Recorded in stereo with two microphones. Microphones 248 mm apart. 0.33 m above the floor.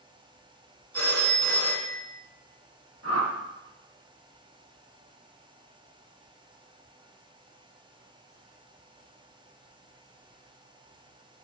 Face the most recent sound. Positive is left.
turn(degrees=-65)  # may be behind; listen again after turning